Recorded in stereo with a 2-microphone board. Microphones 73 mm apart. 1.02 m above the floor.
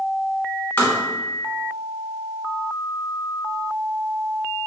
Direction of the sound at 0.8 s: 25° left (ahead or behind).